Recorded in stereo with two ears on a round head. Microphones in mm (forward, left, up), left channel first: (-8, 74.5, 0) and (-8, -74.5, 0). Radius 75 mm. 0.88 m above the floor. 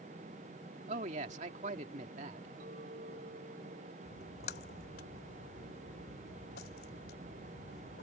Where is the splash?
65° left (ahead or behind).